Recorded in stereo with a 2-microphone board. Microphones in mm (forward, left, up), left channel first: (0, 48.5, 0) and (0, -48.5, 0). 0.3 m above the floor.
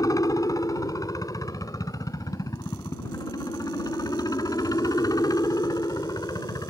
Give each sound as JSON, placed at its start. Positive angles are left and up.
{"t": 0.0, "sound": "a helicopter", "side_deg": 35}